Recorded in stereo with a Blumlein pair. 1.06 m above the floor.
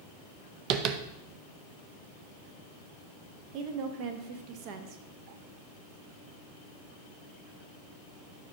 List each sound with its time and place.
0.7 s tapping: 35° right, 0.6 m
3.5 s a woman speaking: 40° right, 0.9 m